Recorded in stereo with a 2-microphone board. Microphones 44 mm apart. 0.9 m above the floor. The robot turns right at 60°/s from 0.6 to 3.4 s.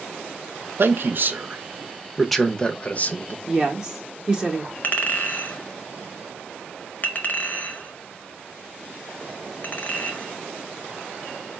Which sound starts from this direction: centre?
A woman speaking, at 3.5 s.